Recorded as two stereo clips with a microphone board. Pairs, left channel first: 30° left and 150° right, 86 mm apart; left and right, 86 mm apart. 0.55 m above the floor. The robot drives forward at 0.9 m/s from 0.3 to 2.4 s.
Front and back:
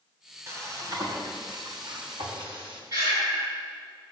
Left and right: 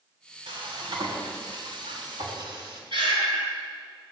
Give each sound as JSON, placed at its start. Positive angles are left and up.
{"t": 0.5, "sound": "frying", "azimuth_deg": -95, "distance_m": 2.5}
{"t": 2.9, "sound": "breathing", "azimuth_deg": -115, "distance_m": 6.0}